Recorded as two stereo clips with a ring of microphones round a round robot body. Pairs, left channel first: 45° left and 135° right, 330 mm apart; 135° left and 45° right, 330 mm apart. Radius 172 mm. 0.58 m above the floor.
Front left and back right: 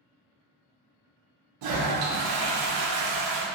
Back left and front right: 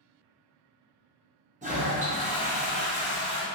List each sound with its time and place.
1.6 s a toilet flushing: 115° right, 0.6 m